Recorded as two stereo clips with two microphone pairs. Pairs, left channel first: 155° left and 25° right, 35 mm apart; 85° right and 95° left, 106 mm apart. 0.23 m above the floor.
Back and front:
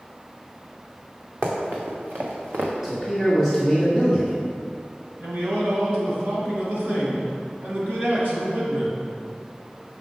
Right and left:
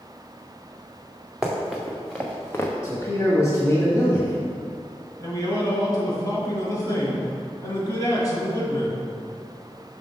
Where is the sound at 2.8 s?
90° right, 1.3 m.